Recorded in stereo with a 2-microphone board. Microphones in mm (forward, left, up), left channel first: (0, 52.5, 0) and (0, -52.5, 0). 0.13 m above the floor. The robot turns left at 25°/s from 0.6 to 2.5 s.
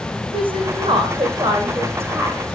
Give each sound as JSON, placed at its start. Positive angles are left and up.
{"t": 0.3, "sound": "a woman speaking", "side_deg": -55, "distance_m": 8.0}